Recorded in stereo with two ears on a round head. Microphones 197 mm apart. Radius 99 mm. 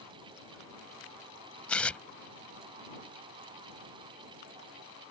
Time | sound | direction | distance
1.7 | tearing paper | 5° left (ahead or behind) | ?